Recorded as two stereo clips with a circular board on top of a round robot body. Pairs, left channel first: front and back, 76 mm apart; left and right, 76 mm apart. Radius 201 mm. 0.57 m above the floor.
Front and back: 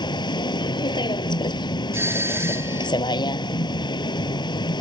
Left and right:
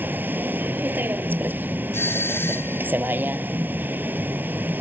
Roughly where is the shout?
I don't hear a shout.